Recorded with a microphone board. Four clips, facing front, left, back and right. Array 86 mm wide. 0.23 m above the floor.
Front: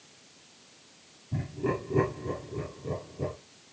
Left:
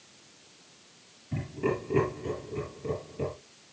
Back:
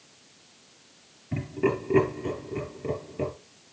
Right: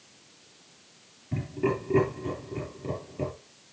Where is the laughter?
170° right, 5 m.